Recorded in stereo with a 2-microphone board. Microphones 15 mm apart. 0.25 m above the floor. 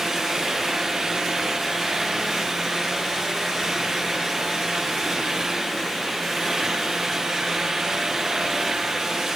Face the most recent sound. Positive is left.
No sound to turn to.